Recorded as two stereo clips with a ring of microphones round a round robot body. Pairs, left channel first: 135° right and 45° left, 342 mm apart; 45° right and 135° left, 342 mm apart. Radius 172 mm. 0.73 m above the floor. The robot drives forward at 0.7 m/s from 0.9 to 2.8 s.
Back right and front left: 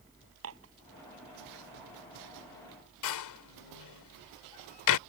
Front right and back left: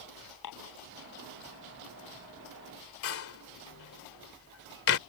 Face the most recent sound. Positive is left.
turn(degrees=-95)